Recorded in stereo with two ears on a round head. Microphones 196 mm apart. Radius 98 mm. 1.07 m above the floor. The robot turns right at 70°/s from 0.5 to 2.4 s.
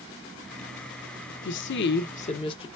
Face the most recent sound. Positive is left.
turn(degrees=150)